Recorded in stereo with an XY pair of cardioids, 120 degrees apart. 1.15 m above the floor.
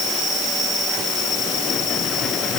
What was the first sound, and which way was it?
Only background noise.